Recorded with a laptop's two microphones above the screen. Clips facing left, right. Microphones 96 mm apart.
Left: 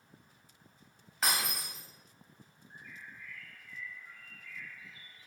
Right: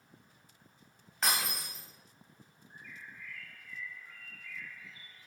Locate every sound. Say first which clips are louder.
1.2 s breaking glass: even; centre (ahead or behind), 3 m
2.7 s a bird: even; 20° left (ahead or behind), 1.6 m